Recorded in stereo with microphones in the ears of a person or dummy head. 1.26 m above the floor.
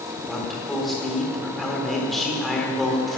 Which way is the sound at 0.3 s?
Centre (ahead or behind).